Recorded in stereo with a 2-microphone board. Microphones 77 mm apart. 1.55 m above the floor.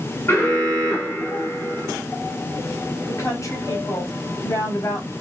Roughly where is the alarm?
Left.